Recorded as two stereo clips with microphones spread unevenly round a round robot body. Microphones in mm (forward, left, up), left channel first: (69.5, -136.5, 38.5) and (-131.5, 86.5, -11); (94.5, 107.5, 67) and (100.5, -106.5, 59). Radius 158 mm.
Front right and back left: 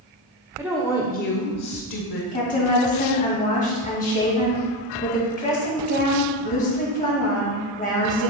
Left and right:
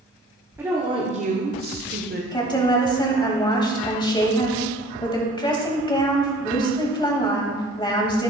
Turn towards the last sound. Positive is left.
turn(degrees=20)